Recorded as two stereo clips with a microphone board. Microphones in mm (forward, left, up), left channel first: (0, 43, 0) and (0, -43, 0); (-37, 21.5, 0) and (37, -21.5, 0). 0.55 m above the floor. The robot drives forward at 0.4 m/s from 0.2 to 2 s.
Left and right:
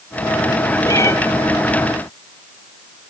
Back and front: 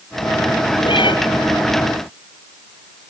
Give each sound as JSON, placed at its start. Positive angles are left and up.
{"t": 0.8, "sound": "a cat meowing", "azimuth_deg": 140, "distance_m": 3.0}